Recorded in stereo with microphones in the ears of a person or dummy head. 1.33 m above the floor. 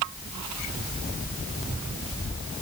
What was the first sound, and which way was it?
Only background noise.